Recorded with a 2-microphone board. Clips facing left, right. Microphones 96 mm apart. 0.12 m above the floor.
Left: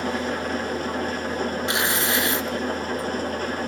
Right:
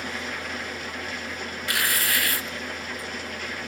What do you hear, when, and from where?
0.0 s an engine running: 40° left (ahead or behind), 1.1 m
1.7 s tearing paper: 25° left (ahead or behind), 1.0 m